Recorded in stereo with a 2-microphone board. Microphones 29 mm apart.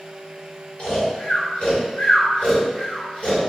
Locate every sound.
0.8 s snoring: 45° left (ahead or behind), 1.9 m